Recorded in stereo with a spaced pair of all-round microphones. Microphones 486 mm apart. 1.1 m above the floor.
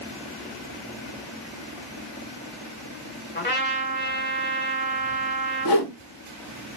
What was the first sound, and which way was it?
A trumpet, 20° left (ahead or behind).